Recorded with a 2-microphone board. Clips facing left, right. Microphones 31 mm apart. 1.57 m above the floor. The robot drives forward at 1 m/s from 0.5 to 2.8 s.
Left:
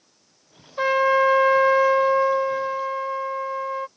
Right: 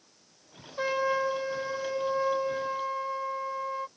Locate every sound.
0.8 s a trumpet: 30° left (ahead or behind); by 3.9 s 25° left (ahead or behind)